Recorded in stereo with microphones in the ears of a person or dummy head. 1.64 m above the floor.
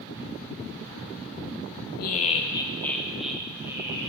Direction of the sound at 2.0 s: 55° left (ahead or behind).